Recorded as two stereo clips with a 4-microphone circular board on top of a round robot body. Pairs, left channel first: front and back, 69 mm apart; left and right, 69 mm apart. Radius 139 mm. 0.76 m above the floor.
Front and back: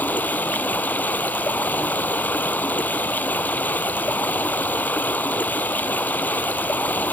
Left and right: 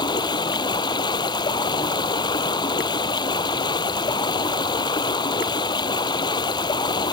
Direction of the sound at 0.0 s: 70° left.